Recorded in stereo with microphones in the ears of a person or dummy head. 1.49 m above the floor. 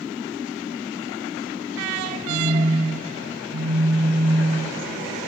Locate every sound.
2.3 s a phone buzzing: 55° right (ahead or behind), 0.7 m